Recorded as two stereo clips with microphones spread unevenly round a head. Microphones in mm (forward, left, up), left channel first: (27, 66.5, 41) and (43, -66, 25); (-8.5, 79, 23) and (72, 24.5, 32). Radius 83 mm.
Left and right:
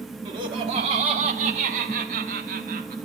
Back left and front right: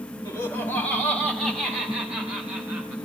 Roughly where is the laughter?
Behind right.